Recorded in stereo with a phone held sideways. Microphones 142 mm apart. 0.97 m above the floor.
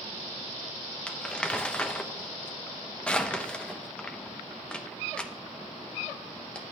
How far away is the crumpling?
About 0.7 m.